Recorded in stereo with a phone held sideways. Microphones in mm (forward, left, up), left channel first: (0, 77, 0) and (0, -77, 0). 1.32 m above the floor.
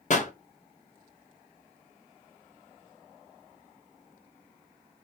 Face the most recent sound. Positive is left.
turn(degrees=50)  # may be behind; listen again after turning